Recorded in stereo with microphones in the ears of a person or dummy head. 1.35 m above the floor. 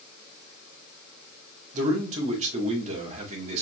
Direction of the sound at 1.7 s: 40° right (ahead or behind).